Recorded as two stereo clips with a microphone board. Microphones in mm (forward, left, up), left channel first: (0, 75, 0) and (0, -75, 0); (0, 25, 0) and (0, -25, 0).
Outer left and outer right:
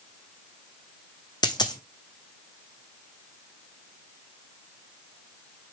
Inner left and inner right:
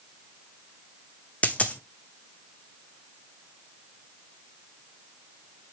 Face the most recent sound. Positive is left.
turn(degrees=30)  # may be behind; listen again after turning